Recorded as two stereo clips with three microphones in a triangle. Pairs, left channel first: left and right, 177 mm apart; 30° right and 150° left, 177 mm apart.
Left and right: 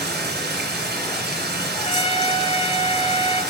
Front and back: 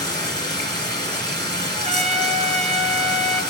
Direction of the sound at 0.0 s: 95° right.